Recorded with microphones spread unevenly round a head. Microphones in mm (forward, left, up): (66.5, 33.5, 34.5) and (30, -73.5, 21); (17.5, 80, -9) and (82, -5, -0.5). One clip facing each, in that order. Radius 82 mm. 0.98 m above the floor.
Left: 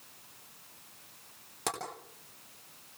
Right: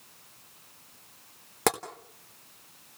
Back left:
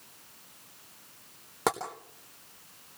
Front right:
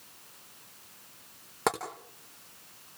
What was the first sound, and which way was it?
Tapping, 150° right.